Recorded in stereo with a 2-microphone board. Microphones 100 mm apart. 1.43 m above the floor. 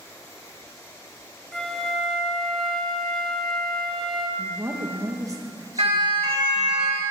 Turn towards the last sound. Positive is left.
turn(degrees=-85)